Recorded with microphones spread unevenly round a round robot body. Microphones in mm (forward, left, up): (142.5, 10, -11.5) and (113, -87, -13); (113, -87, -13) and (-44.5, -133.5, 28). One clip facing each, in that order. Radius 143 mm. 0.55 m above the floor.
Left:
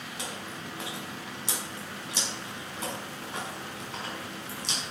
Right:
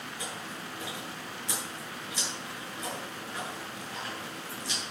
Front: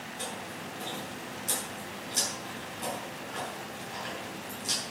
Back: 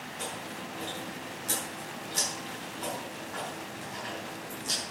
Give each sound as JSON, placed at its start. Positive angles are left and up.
{"t": 0.2, "sound": "chewing", "azimuth_deg": 85, "distance_m": 5.0}